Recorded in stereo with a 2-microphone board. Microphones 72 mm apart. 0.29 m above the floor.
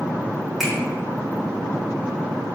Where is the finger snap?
Centre (ahead or behind), 3.5 m.